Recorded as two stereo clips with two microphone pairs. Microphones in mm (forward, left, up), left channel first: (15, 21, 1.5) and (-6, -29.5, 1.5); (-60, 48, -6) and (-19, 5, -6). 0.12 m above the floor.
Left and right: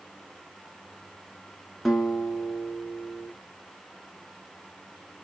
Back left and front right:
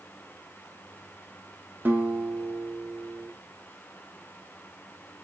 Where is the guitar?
20° right, 0.9 m.